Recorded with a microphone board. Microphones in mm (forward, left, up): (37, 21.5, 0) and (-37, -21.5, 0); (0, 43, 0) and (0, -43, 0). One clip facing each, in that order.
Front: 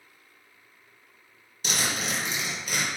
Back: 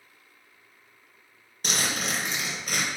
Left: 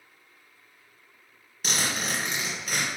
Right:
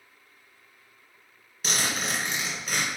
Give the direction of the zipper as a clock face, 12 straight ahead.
6 o'clock.